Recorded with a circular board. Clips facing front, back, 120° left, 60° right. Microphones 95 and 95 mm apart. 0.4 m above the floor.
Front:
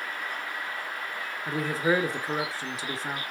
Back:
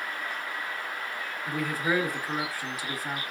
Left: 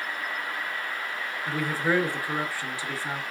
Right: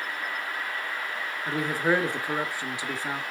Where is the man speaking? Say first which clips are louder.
Front 3 dB, right 1 dB; 15° right, 0.8 m.